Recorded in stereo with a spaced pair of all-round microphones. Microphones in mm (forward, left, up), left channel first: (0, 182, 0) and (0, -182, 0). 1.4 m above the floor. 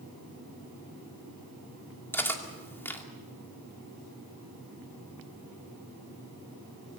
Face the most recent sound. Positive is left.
turn(degrees=5)  # may be behind; listen again after turning